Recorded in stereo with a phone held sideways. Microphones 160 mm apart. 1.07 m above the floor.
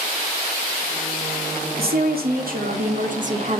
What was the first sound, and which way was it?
A woman speaking, 75° right (ahead or behind).